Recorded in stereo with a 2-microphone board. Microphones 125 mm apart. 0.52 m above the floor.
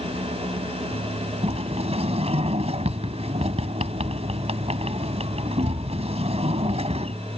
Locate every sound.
1.4 s a sliding door: 50° right (ahead or behind)